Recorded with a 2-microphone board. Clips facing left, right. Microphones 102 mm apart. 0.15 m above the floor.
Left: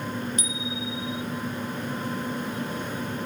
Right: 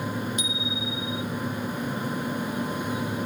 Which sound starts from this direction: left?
A bicycle bell, at 0.4 s.